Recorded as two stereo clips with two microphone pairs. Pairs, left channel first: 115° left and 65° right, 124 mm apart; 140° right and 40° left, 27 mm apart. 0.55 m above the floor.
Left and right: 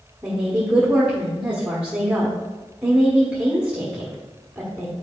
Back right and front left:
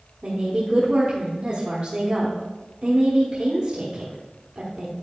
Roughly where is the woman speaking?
Ahead.